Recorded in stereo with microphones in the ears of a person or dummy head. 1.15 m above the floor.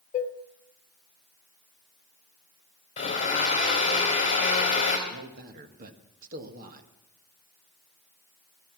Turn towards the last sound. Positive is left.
turn(degrees=-40)  # may be behind; listen again after turning